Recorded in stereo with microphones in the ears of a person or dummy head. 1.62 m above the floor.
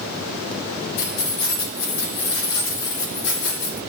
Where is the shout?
I don't hear a shout.